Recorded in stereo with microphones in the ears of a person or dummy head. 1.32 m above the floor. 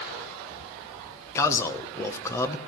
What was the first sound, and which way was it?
A man speaking, 15° left (ahead or behind).